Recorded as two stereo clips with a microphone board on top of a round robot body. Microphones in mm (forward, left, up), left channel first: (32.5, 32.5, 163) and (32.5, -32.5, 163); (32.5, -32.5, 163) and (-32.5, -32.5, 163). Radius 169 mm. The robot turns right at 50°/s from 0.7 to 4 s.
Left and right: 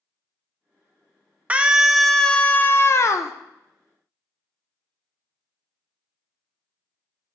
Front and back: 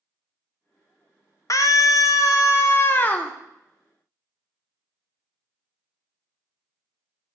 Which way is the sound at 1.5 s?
25° right.